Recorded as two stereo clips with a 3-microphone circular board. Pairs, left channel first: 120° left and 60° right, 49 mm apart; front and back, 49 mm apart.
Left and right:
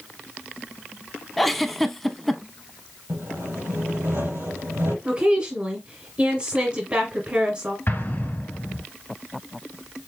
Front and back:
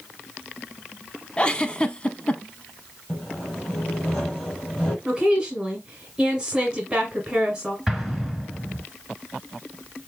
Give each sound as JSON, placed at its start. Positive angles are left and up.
{"t": 1.4, "sound": "a giggle", "azimuth_deg": 40, "distance_m": 0.5}
{"t": 3.1, "sound": "sawing", "azimuth_deg": -70, "distance_m": 4.0}
{"t": 5.0, "sound": "a woman speaking", "azimuth_deg": -100, "distance_m": 1.6}
{"t": 7.9, "sound": "an explosion", "azimuth_deg": 100, "distance_m": 1.5}